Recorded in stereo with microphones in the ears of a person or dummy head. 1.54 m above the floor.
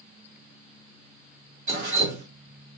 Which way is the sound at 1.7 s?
55° right (ahead or behind).